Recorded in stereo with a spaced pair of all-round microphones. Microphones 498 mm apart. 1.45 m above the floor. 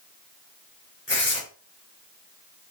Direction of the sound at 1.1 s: 25° left (ahead or behind).